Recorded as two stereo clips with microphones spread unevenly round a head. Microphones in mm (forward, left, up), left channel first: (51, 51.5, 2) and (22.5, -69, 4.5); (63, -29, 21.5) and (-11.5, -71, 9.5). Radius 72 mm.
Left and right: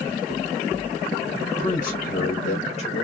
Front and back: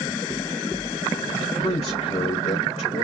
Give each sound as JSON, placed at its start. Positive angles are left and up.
{"t": 1.4, "sound": "a man speaking", "azimuth_deg": 65, "distance_m": 2.5}